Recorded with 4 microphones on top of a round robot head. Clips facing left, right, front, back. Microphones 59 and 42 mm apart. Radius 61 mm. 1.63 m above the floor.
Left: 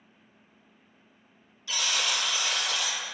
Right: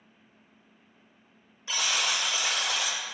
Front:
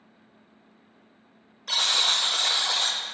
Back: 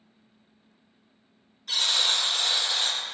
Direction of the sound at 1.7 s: 20° right.